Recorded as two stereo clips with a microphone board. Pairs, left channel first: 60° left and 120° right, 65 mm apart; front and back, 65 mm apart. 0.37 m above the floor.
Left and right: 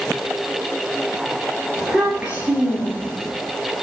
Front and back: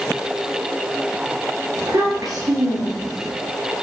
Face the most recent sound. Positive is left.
turn(degrees=-170)